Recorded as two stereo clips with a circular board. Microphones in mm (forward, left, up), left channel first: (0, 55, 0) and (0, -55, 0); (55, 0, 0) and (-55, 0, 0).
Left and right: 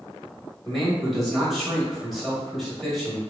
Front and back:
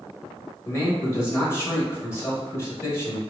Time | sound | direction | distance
0.7 | a man speaking | straight ahead | 1.1 m